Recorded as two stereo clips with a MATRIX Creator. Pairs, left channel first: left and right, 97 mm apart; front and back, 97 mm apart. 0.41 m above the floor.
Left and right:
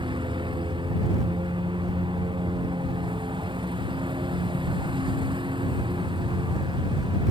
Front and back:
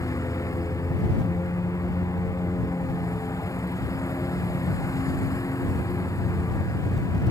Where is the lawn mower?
55° right.